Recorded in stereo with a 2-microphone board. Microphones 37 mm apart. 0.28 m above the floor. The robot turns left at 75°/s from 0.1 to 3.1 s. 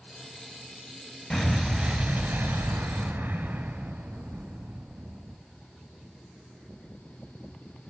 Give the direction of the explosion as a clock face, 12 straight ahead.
12 o'clock.